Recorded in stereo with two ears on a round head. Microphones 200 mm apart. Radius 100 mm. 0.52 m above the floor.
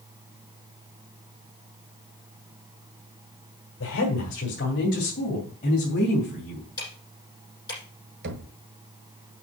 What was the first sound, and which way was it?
A woman speaking, 60° left (ahead or behind).